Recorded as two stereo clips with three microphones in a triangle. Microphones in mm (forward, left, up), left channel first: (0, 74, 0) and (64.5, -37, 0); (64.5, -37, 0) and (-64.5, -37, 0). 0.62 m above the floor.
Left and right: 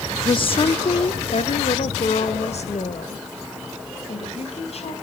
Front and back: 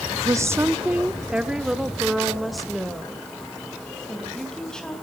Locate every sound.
0.2 s a woman speaking: 135° left, 0.7 m; by 4.9 s 85° left, 3.5 m